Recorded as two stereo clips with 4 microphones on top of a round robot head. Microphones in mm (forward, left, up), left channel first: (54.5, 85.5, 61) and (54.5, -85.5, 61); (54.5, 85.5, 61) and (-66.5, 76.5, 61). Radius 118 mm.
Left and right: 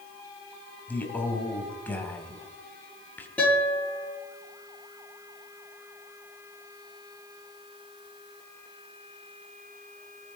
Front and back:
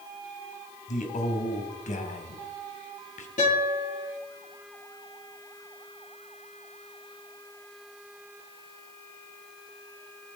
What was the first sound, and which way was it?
A man speaking, 10° left.